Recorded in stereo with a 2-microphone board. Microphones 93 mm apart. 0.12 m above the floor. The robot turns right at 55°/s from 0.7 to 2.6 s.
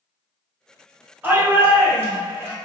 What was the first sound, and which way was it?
A shout, 20° right (ahead or behind).